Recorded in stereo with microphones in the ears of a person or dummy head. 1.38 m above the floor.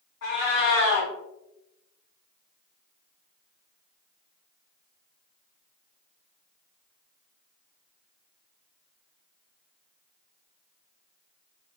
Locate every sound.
0.2 s a cat meowing: 50° left (ahead or behind), 0.9 m